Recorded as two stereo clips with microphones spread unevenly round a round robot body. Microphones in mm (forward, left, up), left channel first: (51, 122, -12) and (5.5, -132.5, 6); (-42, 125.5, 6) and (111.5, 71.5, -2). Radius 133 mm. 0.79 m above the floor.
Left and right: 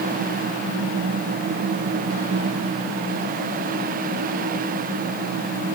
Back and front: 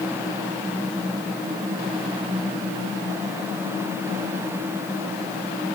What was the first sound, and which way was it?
Only background noise.